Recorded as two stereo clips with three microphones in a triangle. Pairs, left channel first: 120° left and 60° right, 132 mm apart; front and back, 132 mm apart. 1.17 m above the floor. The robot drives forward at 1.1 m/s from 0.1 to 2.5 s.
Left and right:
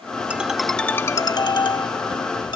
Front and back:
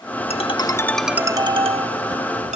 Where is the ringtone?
20° left; by 2.6 s 170° left.